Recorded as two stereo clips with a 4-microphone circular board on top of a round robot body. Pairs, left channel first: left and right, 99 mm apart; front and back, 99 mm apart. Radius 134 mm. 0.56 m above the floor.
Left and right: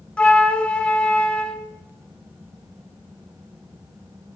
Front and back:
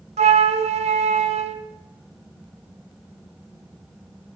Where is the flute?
170° left, 0.8 m.